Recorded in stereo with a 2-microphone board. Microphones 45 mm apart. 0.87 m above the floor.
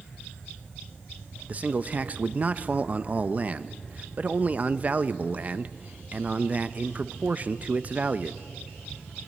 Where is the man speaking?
30° right (ahead or behind), 0.6 m.